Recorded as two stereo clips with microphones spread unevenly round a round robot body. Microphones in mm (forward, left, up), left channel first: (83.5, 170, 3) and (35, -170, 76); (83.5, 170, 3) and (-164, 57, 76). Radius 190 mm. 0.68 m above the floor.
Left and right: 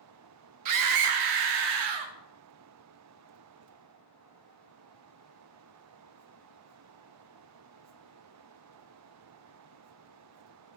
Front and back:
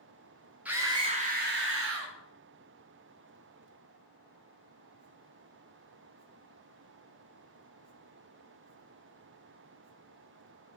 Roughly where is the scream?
Ahead right.